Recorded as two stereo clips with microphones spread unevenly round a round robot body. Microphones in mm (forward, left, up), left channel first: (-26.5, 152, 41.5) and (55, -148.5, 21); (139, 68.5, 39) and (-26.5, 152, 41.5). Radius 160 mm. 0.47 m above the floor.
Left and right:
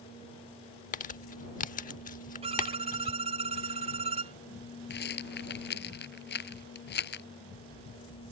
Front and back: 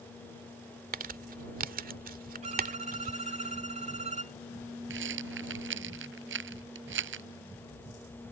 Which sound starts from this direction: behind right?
A violin, at 2.4 s.